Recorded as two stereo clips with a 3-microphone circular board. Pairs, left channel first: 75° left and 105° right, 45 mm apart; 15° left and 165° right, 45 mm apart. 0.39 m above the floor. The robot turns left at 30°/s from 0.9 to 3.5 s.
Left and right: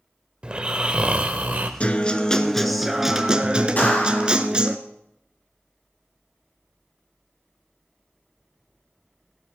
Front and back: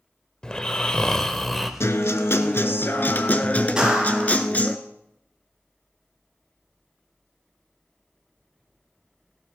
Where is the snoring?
50° right, 1.0 m; by 1.7 s 75° right, 1.0 m.